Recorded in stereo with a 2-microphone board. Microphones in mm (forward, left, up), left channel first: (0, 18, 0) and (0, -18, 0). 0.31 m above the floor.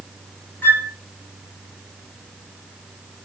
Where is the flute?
60° left (ahead or behind), 2.5 m.